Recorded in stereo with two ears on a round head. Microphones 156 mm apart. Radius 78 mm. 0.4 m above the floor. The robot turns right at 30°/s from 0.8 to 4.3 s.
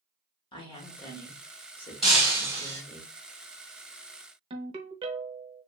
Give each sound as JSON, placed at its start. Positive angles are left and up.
{"t": 0.5, "sound": "a woman speaking", "azimuth_deg": 65, "distance_m": 1.0}
{"t": 2.0, "sound": "breaking glass", "side_deg": 0, "distance_m": 1.7}
{"t": 4.5, "sound": "a ringtone", "side_deg": -30, "distance_m": 0.6}